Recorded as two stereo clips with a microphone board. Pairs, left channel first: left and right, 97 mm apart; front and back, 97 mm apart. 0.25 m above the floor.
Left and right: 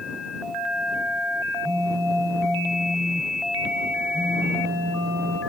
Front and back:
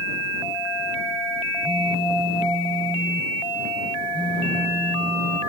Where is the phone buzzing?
30° right.